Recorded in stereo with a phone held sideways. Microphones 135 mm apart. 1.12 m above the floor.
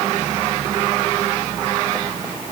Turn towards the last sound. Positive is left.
No sound to turn to.